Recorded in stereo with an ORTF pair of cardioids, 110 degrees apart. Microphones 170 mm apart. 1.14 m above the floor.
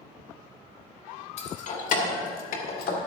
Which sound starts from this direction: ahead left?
Keys jangling, at 1.4 s.